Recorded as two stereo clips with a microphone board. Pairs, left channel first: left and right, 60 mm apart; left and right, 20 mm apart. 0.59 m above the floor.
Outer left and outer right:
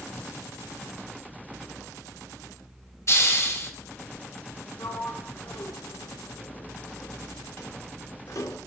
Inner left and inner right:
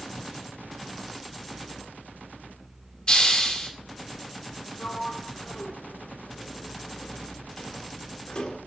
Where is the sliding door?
60° left (ahead or behind), 0.9 m.